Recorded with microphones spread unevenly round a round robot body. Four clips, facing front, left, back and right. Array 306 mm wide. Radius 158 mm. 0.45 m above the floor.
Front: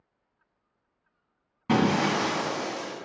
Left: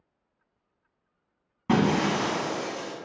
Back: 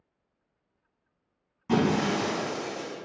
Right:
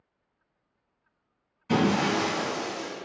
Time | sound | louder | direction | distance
1.7 | breaking glass | left 1 dB, front 1 dB | 55° left | 1.8 m